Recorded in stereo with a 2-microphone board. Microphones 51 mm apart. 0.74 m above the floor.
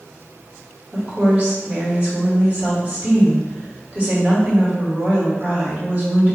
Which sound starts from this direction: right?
A woman speaking, at 0.9 s.